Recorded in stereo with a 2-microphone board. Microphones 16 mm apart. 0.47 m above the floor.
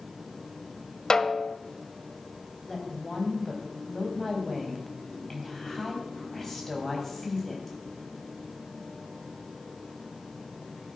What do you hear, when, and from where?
1.1 s a snare drum: 40° left (ahead or behind), 0.7 m
2.6 s a woman speaking: 10° left (ahead or behind), 3.5 m